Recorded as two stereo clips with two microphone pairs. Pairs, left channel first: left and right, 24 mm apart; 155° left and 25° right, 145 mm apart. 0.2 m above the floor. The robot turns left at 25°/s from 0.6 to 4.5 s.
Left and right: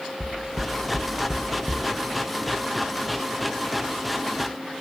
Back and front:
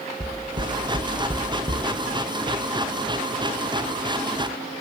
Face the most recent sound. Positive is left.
turn(degrees=-135)